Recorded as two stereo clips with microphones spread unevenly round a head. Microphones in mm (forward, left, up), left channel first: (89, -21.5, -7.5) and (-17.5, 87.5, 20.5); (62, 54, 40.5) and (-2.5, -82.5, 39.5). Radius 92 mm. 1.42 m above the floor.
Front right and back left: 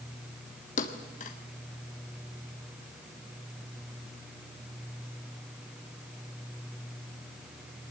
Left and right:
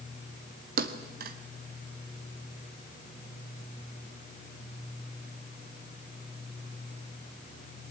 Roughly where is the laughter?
I don't hear laughter.